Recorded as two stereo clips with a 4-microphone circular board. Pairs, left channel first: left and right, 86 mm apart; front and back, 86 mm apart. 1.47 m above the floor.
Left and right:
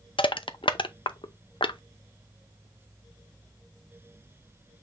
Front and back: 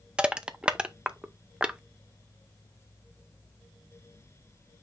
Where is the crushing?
100° left, 0.6 m.